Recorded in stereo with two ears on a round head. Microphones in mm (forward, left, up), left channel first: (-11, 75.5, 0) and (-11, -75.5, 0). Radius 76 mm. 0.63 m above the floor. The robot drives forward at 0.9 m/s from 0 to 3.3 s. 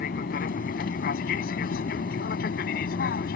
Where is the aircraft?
50° left (ahead or behind); by 3.4 s 55° left (ahead or behind).